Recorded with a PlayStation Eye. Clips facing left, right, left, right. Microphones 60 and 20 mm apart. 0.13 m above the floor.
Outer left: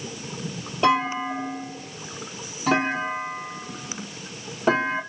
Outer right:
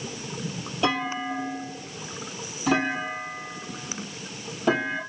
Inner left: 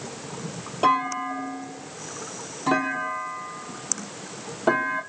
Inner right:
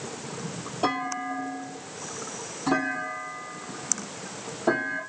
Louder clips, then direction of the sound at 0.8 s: Outer left 5 dB, inner left 6 dB; 30° left (ahead or behind).